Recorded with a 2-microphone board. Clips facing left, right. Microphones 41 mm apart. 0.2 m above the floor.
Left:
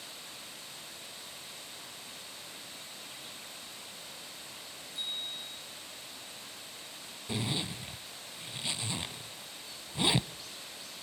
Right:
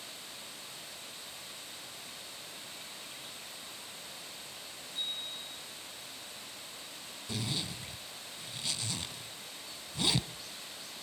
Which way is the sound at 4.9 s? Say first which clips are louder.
Even; 50° right (ahead or behind).